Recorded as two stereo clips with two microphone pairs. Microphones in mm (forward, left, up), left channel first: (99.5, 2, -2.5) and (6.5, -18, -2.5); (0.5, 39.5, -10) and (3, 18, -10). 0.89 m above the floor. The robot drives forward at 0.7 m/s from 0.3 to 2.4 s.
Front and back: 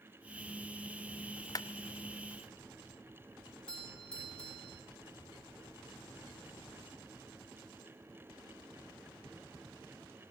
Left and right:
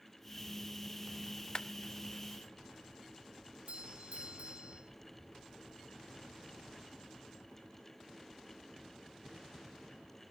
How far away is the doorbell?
About 4.5 m.